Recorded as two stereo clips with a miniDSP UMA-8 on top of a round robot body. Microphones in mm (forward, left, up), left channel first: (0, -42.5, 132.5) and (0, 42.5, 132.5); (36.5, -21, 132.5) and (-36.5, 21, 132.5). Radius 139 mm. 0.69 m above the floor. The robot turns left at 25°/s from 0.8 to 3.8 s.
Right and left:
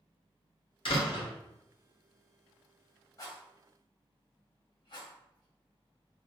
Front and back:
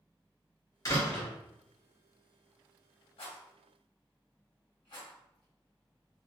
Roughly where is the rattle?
Ahead right.